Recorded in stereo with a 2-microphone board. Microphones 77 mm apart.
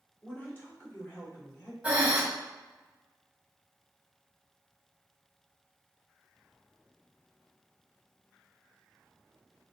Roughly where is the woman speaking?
Centre.